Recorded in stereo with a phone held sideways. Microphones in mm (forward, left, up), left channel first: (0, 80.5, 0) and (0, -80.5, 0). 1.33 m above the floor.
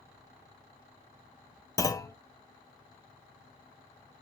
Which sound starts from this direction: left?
A clunk, at 1.8 s.